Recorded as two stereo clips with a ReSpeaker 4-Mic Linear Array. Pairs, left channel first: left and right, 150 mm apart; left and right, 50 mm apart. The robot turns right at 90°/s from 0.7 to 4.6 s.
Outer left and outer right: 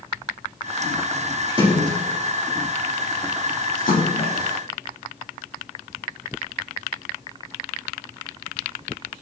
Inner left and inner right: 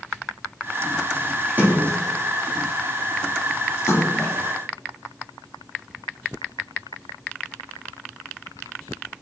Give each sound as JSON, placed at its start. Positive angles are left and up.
{"t": 1.5, "sound": "a splash", "side_deg": -25, "distance_m": 4.5}